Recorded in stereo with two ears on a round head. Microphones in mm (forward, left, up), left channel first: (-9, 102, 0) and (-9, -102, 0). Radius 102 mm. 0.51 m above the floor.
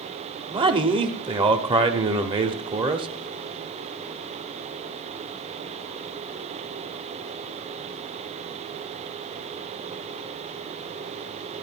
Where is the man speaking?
25° right (ahead or behind), 0.9 m.